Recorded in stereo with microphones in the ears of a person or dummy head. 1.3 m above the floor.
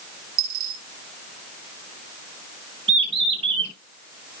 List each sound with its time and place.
0.4 s a dropped coin: 50° right (ahead or behind), 1.2 m
2.9 s a bird: 35° right (ahead or behind), 0.9 m